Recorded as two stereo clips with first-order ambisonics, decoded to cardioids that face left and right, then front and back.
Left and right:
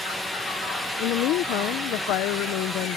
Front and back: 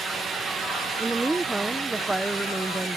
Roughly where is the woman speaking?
Left.